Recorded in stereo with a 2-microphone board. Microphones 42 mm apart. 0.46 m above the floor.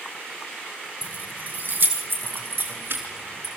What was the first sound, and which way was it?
Keys jangling, 40° right (ahead or behind).